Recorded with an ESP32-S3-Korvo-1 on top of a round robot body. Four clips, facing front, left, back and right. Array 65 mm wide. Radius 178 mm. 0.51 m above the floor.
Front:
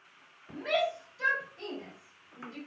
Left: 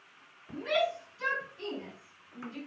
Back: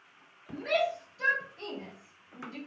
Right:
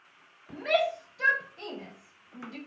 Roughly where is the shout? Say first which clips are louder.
Right 3 dB, back 1 dB; right.